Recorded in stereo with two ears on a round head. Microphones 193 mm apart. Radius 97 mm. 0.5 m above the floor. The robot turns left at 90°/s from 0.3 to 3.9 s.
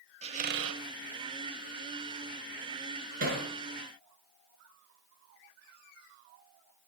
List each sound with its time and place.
0.2 s a squeak: 30° right, 0.7 m; by 0.8 s 75° right, 0.7 m
3.2 s hammering: 40° right (ahead or behind), 4 m; by 3.5 s 65° right (ahead or behind), 4 m